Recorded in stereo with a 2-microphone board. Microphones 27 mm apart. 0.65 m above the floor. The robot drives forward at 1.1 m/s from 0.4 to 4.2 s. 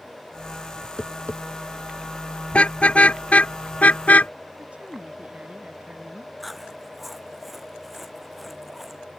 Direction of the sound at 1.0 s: 65° left (ahead or behind).